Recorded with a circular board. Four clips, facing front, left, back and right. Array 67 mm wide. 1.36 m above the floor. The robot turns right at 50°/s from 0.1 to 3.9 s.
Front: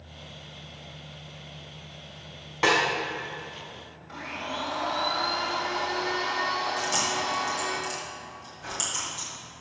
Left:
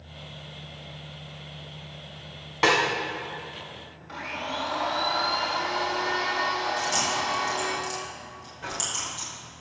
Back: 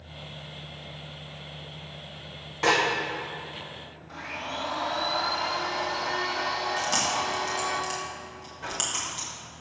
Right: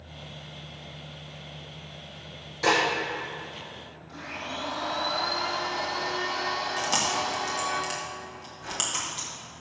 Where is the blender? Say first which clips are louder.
Left 4 dB, front 1 dB; 80° left, 2 m.